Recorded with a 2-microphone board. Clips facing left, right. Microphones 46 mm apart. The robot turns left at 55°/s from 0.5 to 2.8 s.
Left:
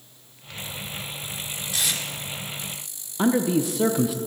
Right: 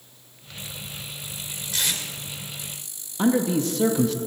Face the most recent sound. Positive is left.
turn(degrees=10)  # may be behind; listen again after turning